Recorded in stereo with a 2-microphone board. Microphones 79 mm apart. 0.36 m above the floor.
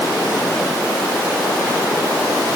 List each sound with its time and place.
Only background noise.